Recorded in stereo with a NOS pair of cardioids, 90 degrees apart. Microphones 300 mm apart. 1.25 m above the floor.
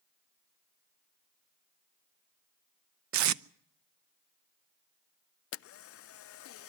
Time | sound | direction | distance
3.1 | tape being pulled | 70° right | 0.6 m
5.5 | a camera shutter | 50° left | 0.5 m